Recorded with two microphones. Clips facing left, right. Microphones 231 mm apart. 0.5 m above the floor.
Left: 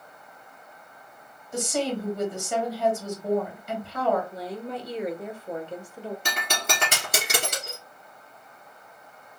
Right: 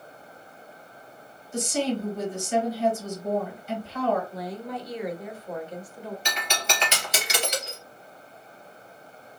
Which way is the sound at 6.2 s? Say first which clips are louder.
Even; 50° left (ahead or behind).